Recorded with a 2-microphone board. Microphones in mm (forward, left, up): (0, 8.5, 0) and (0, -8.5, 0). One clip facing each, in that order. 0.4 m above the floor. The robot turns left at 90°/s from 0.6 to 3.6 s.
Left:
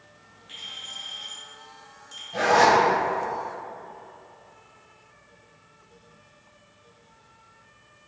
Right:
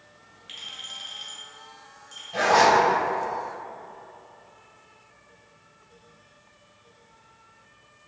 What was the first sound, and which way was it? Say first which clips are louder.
A clink: even; 30° right (ahead or behind).